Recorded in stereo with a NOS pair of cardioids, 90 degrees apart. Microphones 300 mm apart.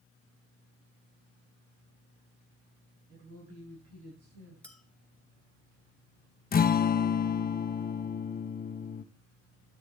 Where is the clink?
5° left, 2.5 m.